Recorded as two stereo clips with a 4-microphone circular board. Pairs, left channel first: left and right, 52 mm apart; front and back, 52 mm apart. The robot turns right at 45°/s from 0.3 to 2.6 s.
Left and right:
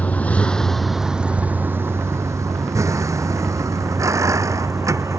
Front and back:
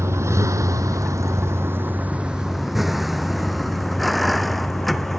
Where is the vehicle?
150° left; by 5.2 s 90° right.